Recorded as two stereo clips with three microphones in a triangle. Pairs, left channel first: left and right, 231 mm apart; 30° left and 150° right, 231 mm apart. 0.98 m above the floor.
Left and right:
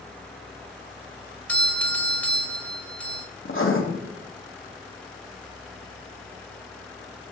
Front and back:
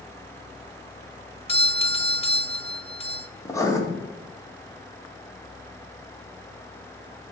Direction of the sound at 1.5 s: 15° left.